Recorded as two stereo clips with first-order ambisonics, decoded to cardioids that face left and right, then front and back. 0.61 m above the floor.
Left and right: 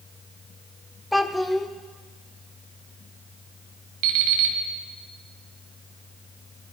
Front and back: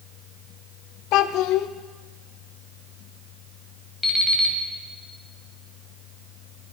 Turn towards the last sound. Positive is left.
turn(degrees=-85)